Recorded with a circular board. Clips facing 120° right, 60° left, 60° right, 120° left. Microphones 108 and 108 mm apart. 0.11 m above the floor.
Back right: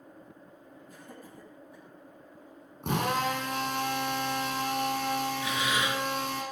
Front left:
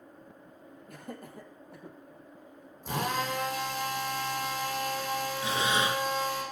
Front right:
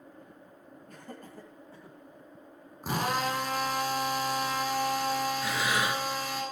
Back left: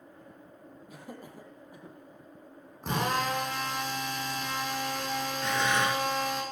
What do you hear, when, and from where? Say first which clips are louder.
0.9 s laughter: front left 6 dB, back left 1 dB; 40° left, 3.5 m; by 2.0 s 45° left, 4 m
2.8 s a drill: back right 3 dB, even; 145° right, 7 m
5.4 s breathing: front left 2 dB, back left 2 dB; 20° left, 1.8 m